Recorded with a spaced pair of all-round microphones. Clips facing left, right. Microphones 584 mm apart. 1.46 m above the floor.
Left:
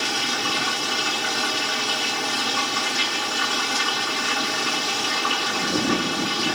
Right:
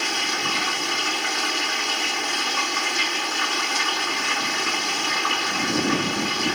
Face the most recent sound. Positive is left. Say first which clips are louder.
# left 1 dB
turn(degrees=60)  # may be behind; listen again after turning